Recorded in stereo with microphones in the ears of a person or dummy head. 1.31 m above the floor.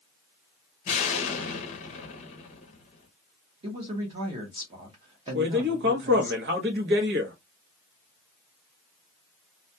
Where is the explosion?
40° left (ahead or behind), 0.7 m.